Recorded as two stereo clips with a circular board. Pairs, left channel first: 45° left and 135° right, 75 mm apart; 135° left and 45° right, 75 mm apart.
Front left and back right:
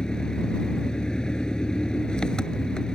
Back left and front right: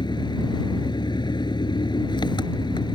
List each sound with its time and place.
0.0 s an engine running: 125° left